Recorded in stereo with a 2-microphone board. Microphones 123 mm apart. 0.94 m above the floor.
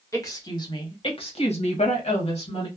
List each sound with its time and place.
0.1 s a woman speaking: 25° left (ahead or behind), 1.1 m; by 2.7 s 50° left (ahead or behind), 1.1 m